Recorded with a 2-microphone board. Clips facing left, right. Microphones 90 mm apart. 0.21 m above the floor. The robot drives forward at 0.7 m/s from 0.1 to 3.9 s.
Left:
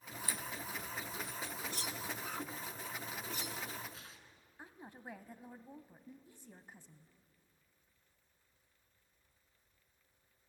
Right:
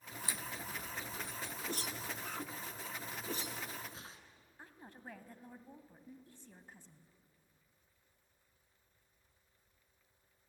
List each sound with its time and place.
0.2 s a crack: 20° right (ahead or behind), 1.0 m; by 1.5 s 25° right (ahead or behind), 0.9 m
1.7 s a whoosh: 45° right (ahead or behind), 1.5 m; by 4.2 s 30° right (ahead or behind), 2 m
4.6 s a woman speaking: 10° left (ahead or behind), 1.4 m